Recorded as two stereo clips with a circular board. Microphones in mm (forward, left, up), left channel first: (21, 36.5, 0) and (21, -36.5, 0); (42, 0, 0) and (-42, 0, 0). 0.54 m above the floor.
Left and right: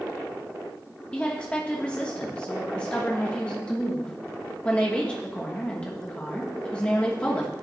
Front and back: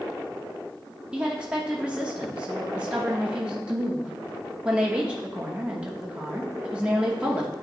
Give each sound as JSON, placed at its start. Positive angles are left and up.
{"t": 1.1, "sound": "a woman speaking", "azimuth_deg": 130, "distance_m": 0.8}